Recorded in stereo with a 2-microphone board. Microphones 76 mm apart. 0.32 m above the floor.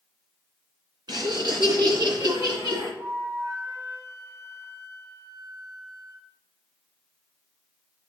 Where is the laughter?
70° right (ahead or behind), 3 m; by 2.9 s 65° right (ahead or behind), 5.5 m.